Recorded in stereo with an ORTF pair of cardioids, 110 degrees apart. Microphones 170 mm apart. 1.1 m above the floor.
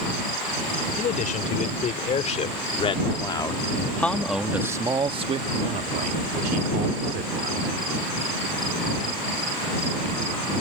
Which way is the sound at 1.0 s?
50° left.